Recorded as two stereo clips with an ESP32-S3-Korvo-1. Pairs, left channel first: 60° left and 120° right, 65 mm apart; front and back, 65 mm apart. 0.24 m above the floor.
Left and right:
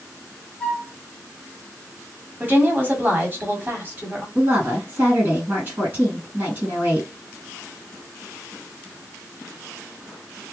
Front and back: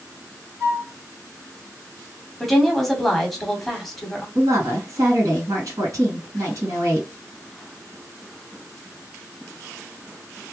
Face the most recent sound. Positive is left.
turn(degrees=-170)